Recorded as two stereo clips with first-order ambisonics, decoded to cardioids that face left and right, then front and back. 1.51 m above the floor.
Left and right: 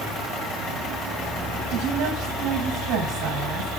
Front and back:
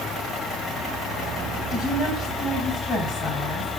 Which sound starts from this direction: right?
A woman speaking, at 1.7 s.